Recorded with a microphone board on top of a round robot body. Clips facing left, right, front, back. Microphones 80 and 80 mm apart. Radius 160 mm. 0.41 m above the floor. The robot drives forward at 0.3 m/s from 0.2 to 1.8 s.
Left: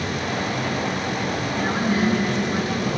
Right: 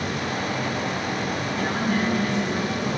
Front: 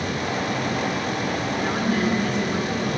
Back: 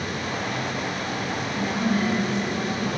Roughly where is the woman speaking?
Ahead.